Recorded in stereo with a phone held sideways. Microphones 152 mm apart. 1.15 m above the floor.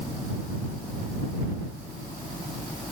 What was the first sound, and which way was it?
Only background noise.